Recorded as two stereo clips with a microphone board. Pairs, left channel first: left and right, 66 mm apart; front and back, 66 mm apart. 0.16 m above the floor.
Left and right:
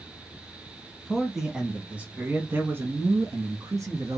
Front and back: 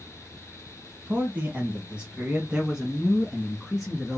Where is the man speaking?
175° left, 1.3 m; by 4.2 s 90° right, 2 m.